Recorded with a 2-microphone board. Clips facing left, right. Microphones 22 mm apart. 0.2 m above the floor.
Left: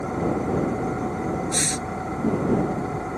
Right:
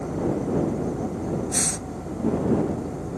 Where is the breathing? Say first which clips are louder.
Left 2 dB; 60° left (ahead or behind).